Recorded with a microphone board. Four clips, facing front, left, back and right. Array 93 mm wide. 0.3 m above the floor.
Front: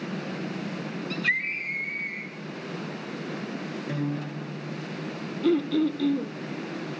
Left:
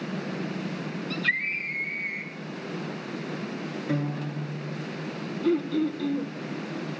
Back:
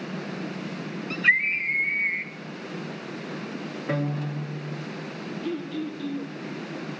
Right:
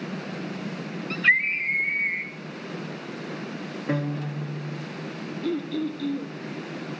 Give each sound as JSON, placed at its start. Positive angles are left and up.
{"t": 1.1, "sound": "a scream", "azimuth_deg": -120, "distance_m": 2.0}
{"t": 3.9, "sound": "a guitar", "azimuth_deg": -130, "distance_m": 6.5}
{"t": 5.4, "sound": "throat clearing", "azimuth_deg": 10, "distance_m": 1.9}